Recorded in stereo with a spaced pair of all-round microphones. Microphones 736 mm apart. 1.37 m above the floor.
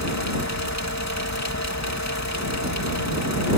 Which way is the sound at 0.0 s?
20° left (ahead or behind).